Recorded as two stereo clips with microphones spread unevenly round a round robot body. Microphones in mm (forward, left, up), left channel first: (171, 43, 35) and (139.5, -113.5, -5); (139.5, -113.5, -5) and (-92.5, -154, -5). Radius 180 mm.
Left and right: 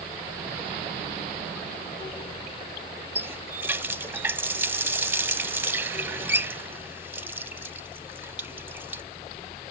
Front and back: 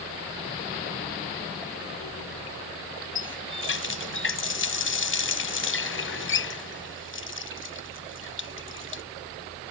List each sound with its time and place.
3.1 s a running tap: 20° right